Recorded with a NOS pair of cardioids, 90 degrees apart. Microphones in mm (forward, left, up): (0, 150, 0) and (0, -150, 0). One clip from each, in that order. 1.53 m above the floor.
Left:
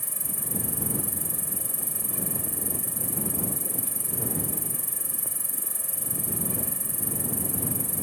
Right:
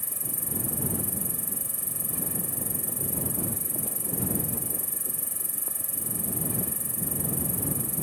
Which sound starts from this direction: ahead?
An insect, at 0.0 s.